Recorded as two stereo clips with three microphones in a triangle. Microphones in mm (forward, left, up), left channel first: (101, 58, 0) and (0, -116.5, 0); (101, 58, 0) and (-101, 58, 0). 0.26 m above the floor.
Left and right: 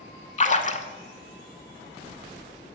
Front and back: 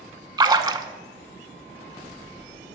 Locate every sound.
0.4 s a splash: 110° left, 0.6 m